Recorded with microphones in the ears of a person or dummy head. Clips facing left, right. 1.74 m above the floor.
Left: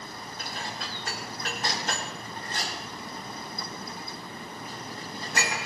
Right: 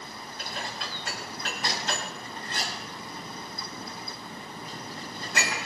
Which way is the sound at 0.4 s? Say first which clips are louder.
Right 1 dB; 40° left (ahead or behind).